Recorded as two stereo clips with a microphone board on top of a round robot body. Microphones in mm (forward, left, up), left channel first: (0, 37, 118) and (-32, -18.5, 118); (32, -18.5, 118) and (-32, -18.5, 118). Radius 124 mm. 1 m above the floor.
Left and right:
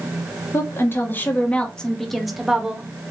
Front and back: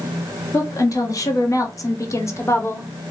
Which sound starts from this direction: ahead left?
A woman speaking, at 0.5 s.